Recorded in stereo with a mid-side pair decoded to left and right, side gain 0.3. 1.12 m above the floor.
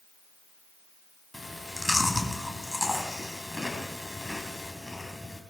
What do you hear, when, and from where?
1.3 s chewing: 10° left, 3 m